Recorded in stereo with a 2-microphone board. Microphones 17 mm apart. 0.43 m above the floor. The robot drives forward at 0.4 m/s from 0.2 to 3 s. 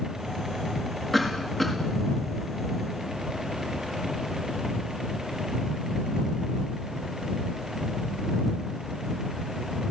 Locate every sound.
1.1 s a cough: 15° left (ahead or behind), 6.5 m